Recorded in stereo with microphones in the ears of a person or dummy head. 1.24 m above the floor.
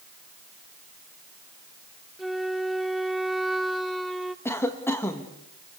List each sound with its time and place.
2.2 s a flute: centre (ahead or behind), 0.9 m
4.5 s a cough: 15° left (ahead or behind), 1.5 m